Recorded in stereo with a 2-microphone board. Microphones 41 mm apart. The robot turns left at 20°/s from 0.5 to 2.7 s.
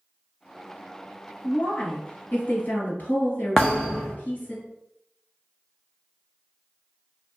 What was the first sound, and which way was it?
A woman speaking, 40° left (ahead or behind).